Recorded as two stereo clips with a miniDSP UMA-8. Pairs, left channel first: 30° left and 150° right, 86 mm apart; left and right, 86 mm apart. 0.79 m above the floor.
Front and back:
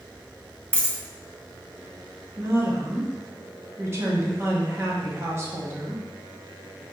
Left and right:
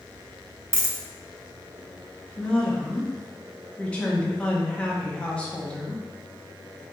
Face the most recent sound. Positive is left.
turn(degrees=160)